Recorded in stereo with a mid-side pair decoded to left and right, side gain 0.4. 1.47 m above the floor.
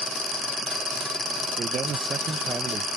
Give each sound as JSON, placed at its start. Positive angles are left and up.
{"t": 1.6, "sound": "a man speaking", "azimuth_deg": -50}